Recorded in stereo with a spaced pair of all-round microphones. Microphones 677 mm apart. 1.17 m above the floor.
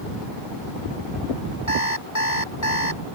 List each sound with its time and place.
1.7 s an alarm clock: 25° left (ahead or behind)